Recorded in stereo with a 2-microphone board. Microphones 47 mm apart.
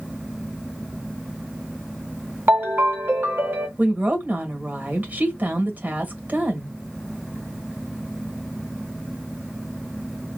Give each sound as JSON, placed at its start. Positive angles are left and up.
{"t": 2.5, "sound": "a ringtone", "side_deg": -50, "distance_m": 1.5}
{"t": 3.8, "sound": "a woman speaking", "side_deg": -40, "distance_m": 1.4}